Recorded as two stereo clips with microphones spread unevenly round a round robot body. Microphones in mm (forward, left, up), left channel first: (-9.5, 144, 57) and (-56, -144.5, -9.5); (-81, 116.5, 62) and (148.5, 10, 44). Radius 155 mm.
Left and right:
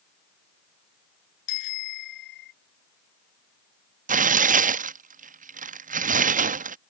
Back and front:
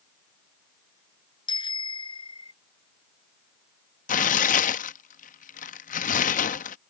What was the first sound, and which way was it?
A bicycle bell, 85° left.